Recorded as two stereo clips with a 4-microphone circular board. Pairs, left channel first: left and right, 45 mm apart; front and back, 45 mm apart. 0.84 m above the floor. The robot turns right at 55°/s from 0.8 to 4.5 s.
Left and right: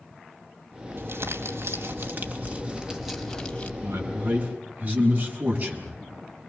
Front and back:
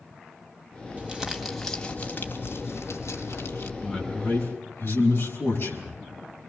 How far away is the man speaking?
About 7 m.